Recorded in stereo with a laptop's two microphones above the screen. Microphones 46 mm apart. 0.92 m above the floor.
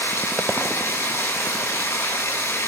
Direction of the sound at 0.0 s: 80° left.